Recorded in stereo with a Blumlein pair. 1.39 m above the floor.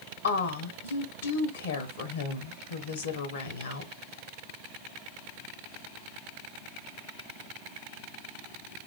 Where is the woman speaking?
65° left, 1.0 m.